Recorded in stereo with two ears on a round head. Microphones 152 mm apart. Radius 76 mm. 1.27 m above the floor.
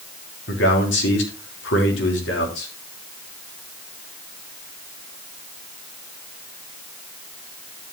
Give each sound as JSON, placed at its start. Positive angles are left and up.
{"t": 0.5, "sound": "a man speaking", "side_deg": 80, "distance_m": 3.5}